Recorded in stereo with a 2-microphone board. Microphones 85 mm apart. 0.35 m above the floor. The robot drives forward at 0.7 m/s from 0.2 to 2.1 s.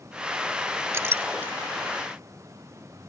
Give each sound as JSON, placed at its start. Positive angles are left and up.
{"t": 0.9, "sound": "a clink", "side_deg": -35}